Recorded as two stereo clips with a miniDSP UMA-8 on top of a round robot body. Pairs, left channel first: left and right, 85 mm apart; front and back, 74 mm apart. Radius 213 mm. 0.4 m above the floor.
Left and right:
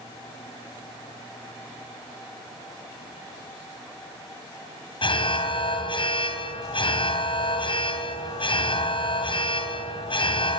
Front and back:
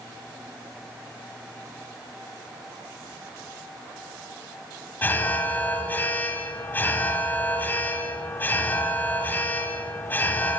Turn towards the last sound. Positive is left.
turn(degrees=70)